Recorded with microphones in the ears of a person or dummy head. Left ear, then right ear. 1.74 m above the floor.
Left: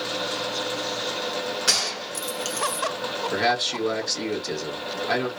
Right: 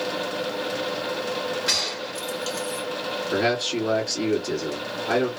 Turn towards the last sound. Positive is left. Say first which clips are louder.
# even
turn(degrees=30)  # may be behind; listen again after turning